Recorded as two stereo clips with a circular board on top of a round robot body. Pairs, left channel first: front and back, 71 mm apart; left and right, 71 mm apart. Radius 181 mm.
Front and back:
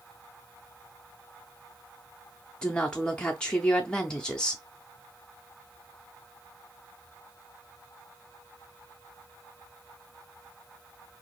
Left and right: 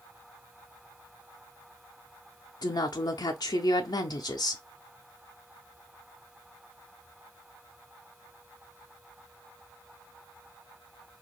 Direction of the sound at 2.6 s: 75° left.